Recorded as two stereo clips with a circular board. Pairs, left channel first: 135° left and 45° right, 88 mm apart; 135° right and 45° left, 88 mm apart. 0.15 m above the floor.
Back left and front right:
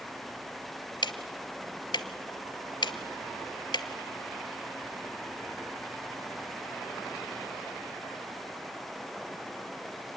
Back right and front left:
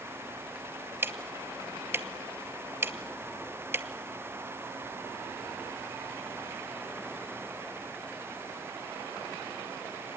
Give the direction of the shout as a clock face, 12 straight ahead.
I don't hear a shout.